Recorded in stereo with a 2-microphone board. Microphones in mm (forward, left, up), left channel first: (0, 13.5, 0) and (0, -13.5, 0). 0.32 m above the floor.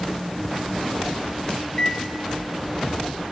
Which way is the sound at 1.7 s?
20° left (ahead or behind).